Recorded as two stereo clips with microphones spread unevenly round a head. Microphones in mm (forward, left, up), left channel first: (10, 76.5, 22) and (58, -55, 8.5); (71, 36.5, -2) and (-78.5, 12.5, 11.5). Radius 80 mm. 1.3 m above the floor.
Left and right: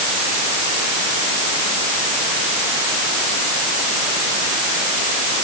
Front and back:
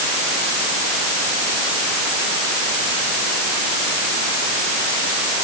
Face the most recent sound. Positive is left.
No sound to turn to.